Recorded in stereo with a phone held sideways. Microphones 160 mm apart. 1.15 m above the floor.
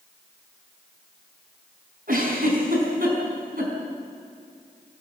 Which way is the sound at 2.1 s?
65° right (ahead or behind).